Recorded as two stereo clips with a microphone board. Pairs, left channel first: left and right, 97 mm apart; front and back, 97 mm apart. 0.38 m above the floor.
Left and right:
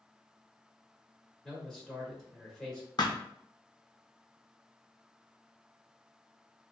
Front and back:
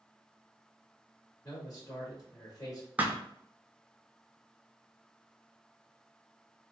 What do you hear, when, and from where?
1.4 s a man speaking: 5° left, 1.4 m
3.0 s a thud: 110° left, 0.6 m